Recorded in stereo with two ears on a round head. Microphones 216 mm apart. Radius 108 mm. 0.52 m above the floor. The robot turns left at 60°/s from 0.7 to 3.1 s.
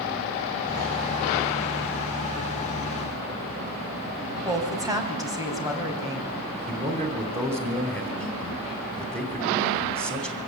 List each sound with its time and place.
4.5 s a woman speaking: 15° right (ahead or behind), 4 m
6.7 s a man speaking: 25° right (ahead or behind), 3 m